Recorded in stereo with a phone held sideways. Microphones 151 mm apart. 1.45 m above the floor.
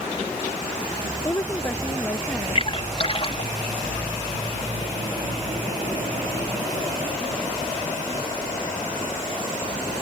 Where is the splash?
45° left (ahead or behind).